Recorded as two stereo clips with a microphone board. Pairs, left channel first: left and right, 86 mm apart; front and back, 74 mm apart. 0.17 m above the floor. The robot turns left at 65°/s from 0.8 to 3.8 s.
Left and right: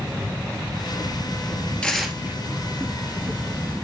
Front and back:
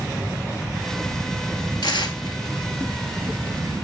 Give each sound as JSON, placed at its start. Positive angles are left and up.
{"t": 1.8, "sound": "tearing paper", "azimuth_deg": 10, "distance_m": 1.0}